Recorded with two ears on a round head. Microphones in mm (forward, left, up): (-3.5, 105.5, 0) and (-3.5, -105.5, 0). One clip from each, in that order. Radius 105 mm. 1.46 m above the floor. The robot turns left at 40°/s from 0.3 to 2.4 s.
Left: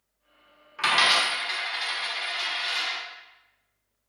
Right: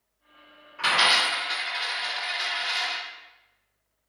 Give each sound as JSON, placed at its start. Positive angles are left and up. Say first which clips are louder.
{"t": 0.8, "sound": "a dropped coin", "louder": "even", "side_deg": 25, "distance_m": 0.9}